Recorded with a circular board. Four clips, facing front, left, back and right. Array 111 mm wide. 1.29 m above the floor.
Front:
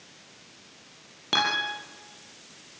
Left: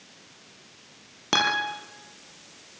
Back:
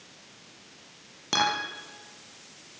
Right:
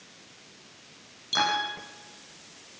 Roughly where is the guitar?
Left.